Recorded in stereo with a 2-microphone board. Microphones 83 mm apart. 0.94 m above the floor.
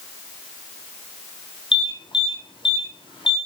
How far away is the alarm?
About 9 m.